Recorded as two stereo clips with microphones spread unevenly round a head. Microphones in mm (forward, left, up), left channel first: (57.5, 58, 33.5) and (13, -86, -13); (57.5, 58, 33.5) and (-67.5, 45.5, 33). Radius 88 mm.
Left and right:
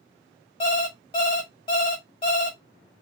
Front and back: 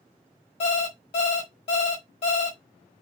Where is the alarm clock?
35° left, 1.7 m.